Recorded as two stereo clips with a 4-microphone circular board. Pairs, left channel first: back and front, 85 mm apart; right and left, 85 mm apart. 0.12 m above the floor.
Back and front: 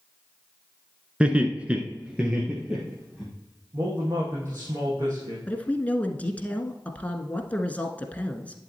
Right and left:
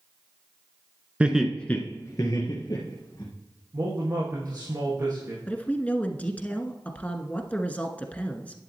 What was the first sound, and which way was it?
Laughter, 50° left.